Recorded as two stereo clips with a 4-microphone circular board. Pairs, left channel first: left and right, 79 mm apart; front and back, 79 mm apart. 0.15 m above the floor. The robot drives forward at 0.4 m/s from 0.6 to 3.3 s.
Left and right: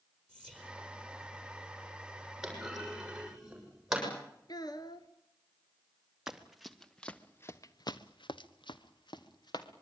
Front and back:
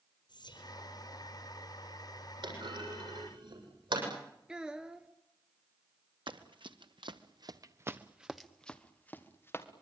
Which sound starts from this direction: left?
A child speaking, at 4.5 s.